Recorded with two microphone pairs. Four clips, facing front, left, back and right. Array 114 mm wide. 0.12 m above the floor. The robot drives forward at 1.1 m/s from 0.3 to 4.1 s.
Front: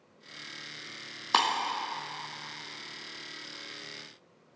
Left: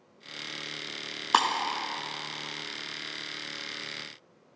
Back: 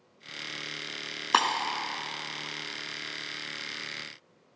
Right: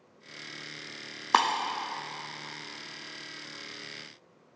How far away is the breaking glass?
About 0.7 m.